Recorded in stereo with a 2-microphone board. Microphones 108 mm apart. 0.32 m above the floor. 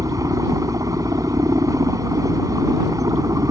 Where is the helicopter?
30° right (ahead or behind).